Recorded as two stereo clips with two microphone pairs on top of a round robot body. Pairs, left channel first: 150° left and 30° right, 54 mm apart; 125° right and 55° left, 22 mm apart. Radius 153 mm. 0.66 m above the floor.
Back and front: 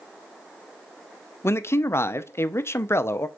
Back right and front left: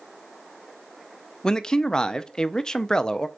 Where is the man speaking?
175° left, 0.7 m.